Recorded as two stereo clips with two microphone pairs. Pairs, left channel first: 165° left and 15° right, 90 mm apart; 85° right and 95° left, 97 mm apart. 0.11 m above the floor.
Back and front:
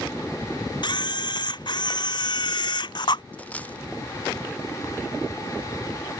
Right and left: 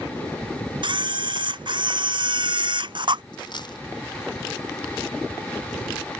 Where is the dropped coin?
125° right.